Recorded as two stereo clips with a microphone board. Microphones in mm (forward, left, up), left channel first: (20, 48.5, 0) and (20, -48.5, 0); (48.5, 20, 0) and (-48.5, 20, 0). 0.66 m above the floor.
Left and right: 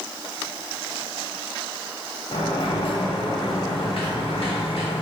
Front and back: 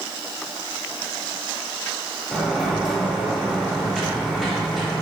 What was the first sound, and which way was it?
A sliding door, 90° left.